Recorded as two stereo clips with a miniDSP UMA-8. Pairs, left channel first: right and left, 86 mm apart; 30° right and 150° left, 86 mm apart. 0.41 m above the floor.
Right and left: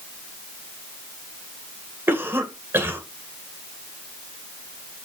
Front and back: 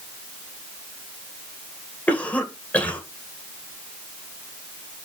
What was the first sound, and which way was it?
A cough, 35° left.